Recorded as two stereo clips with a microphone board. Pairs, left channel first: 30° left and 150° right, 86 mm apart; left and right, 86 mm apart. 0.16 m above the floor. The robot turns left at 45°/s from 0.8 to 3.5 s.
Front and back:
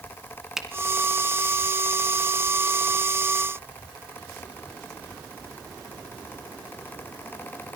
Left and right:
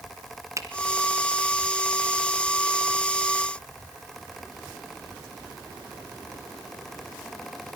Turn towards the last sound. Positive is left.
turn(degrees=170)